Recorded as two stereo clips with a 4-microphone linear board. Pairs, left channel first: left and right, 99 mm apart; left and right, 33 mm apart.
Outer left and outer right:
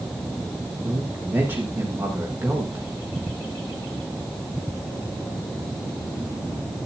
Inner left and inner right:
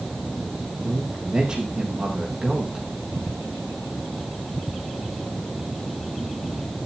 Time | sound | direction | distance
0.8 | a man speaking | 20° right (ahead or behind) | 5.5 m